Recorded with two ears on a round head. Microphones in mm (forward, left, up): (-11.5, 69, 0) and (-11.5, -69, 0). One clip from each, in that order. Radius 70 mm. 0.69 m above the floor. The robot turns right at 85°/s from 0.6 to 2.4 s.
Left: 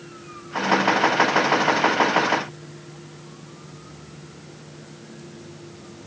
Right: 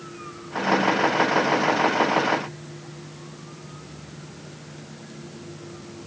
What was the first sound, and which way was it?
Only background noise.